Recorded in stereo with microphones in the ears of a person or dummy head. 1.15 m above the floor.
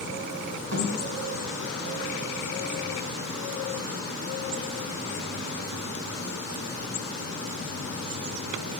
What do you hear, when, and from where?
0.7 s a thud: 75° right (ahead or behind), 2 m